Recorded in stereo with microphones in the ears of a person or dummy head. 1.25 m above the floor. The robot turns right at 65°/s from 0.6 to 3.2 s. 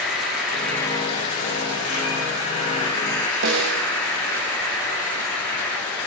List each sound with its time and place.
0.0 s an insect: straight ahead, 3 m; by 6.1 s 170° left, 3 m
3.4 s a snare drum: 65° right (ahead or behind), 1.4 m